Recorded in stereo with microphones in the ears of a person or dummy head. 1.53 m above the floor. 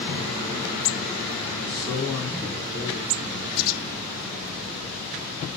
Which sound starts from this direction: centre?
A man speaking, at 1.6 s.